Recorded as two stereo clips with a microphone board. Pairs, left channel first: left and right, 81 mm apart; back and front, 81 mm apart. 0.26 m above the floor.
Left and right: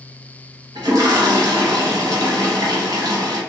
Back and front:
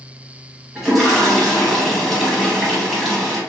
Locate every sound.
0.8 s a toilet flushing: 85° right, 1.0 m